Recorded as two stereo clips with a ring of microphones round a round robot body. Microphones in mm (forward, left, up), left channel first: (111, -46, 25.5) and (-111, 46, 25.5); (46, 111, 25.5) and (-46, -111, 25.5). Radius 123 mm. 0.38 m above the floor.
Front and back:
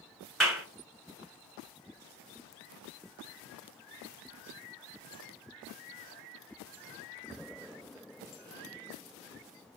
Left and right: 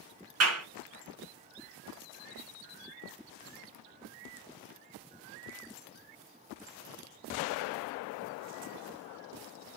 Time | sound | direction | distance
0.4 | a clap | 110° right | 2 m